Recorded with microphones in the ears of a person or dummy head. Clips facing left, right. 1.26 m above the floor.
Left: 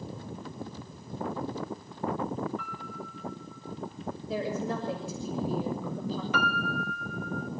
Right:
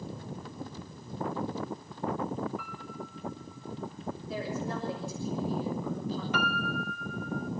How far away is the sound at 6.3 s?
About 1.3 m.